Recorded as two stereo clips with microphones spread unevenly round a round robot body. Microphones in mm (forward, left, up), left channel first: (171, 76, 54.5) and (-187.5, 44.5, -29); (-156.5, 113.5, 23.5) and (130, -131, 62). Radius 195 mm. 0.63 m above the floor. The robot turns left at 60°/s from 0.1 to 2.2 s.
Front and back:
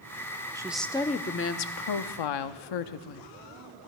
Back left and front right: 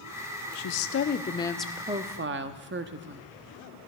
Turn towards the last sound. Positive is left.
turn(degrees=20)